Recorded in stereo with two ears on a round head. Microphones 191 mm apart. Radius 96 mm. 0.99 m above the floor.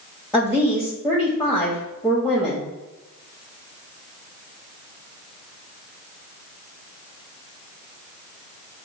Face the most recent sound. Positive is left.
turn(degrees=0)  # may be behind; listen again after turning